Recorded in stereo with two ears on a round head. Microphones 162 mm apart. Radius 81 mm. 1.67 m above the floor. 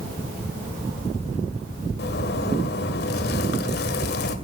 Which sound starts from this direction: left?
A zipper, at 2.0 s.